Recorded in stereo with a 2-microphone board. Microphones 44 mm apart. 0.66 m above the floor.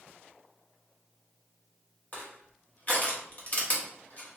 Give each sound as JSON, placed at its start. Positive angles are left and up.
{"t": 2.1, "sound": "crushing", "side_deg": 40, "distance_m": 0.7}